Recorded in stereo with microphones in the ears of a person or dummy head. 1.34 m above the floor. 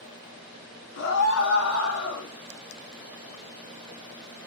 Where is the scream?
80° left, 4 m.